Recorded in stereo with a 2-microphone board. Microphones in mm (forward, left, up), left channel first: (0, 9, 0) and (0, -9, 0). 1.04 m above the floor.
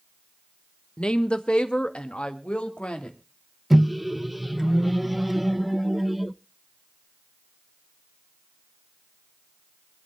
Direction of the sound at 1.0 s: 60° left (ahead or behind).